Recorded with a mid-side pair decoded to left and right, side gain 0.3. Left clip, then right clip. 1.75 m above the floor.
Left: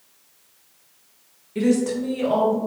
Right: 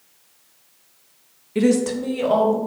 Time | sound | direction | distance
1.6 | a woman speaking | 60° right | 0.5 m